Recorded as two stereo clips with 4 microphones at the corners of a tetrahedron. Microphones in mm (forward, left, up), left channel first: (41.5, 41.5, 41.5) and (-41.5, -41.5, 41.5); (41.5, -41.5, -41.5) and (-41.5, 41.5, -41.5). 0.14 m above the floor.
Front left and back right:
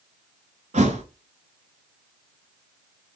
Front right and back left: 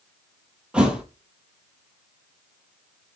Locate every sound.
0.7 s a thud: 145° right, 0.9 m